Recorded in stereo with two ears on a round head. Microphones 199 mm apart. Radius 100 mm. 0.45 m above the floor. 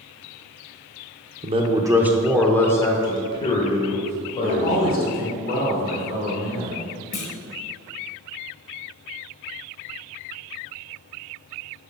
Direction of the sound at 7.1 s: 60° left (ahead or behind).